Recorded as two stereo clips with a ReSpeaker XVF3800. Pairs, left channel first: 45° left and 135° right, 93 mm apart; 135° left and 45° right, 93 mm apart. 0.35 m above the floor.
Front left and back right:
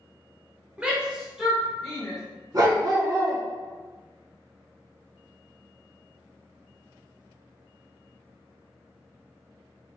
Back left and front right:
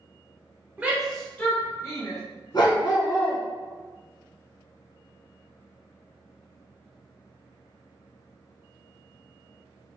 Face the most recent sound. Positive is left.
turn(degrees=175)